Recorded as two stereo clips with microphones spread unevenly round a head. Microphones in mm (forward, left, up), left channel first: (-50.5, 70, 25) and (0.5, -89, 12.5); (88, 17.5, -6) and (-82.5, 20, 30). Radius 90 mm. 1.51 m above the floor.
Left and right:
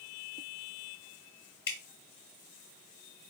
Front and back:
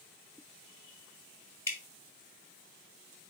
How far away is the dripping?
About 1.7 m.